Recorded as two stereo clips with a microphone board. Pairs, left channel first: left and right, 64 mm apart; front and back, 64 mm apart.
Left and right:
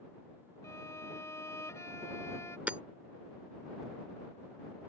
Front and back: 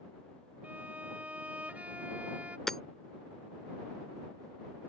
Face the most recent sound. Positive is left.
turn(degrees=-75)